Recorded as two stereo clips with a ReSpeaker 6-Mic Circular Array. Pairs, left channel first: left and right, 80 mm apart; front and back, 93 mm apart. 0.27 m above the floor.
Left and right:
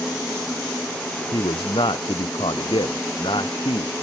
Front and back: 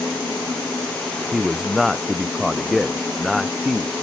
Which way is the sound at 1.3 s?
90° left.